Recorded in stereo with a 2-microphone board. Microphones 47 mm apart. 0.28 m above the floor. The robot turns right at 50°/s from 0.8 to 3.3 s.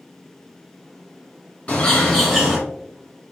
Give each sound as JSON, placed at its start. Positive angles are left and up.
{"t": 1.7, "sound": "a bird", "azimuth_deg": 140, "distance_m": 1.6}